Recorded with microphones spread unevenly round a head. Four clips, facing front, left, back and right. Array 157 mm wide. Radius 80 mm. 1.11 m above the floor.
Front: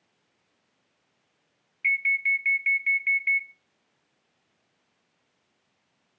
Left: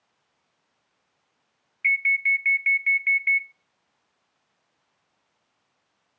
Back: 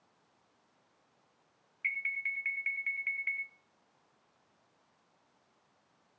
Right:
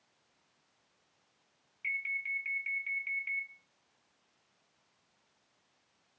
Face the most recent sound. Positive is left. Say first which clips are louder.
# left 14 dB, front 11 dB
turn(degrees=65)